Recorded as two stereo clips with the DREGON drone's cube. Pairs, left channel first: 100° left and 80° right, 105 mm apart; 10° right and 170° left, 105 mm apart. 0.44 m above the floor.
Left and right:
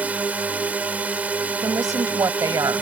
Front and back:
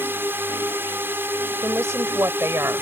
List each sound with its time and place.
0.0 s a drone: 140° right
1.6 s a woman speaking: 130° right